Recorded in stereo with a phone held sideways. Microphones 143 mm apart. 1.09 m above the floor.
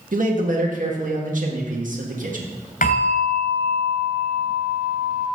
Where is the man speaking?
65° right (ahead or behind), 1.7 m.